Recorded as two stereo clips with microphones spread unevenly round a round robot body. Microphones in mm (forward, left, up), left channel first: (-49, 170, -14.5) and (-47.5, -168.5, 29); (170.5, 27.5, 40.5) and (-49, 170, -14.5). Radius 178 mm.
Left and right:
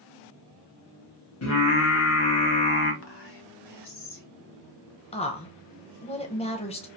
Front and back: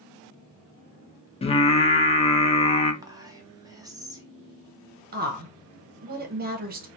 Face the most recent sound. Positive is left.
turn(degrees=145)